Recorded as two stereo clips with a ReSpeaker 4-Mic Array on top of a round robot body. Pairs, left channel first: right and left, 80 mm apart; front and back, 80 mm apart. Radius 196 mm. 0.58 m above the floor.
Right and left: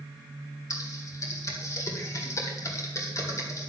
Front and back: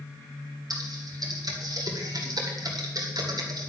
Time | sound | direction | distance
0.7 | typing on a keyboard | 140° right | 1.9 m